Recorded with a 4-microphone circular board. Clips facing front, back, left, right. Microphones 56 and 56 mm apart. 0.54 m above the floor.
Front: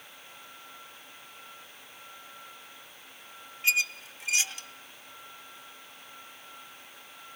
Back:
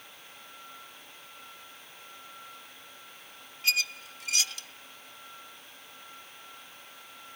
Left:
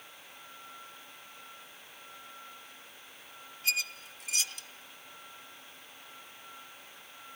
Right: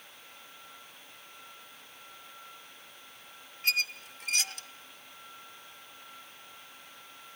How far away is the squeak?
About 1.0 m.